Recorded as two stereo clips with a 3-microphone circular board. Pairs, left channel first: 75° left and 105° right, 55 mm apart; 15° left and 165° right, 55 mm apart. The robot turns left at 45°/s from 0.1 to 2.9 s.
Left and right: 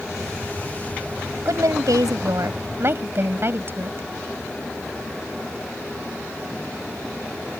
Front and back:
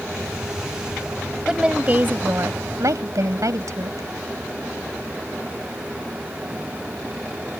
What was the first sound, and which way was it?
A woman speaking, 85° right.